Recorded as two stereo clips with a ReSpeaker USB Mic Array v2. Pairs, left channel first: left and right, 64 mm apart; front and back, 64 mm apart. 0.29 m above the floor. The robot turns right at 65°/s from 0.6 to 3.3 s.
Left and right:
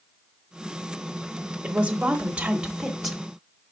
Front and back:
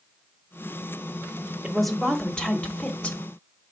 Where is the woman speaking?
100° right, 0.9 m; by 3.2 s straight ahead, 0.9 m.